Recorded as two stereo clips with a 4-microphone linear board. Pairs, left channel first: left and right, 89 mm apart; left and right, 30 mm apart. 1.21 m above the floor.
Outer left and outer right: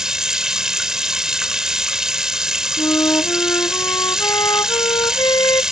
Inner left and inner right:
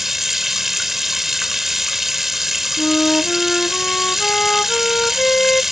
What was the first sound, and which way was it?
Running water, 5° right (ahead or behind).